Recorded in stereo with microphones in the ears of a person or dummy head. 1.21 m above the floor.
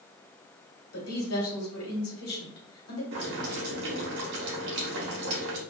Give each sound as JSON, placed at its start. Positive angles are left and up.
{"t": 0.9, "sound": "a woman speaking", "side_deg": 70, "distance_m": 1.3}
{"t": 3.1, "sound": "boiling", "side_deg": -60, "distance_m": 0.8}